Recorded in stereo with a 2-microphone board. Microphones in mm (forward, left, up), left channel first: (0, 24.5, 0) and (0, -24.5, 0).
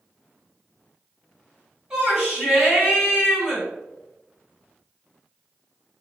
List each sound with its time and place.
1.9 s a shout: 10° right (ahead or behind), 1.8 m